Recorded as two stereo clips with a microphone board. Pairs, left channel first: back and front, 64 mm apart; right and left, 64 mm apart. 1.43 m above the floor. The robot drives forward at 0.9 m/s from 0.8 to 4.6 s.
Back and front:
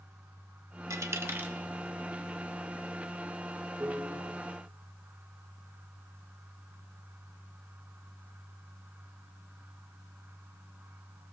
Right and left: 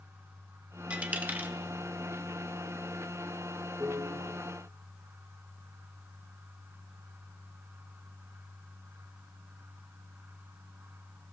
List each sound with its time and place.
0.9 s a dropped coin: 25° left, 1.2 m; by 1.5 s 55° left, 0.8 m
3.8 s a piano: 60° left, 2.5 m; by 4.3 s 70° left, 2 m